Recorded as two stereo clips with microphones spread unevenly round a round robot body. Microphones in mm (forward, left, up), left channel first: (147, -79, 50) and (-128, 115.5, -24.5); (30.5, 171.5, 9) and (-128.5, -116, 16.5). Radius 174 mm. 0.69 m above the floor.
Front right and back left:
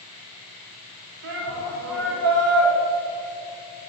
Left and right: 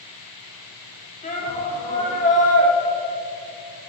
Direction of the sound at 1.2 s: 125° left.